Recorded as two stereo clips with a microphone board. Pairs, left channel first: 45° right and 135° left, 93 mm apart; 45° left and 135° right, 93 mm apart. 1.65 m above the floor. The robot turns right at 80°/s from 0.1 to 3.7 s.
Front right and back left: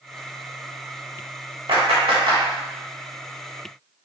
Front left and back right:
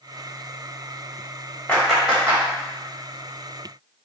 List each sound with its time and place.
1.7 s a clap: 120° left, 2.5 m; by 2.4 s straight behind, 2.5 m